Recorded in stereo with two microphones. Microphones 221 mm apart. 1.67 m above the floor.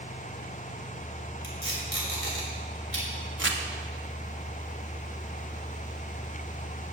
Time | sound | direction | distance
1.4 | tape being pulled | 75° left (ahead or behind) | 4 m
3.4 | crumpling | 65° right (ahead or behind) | 1.3 m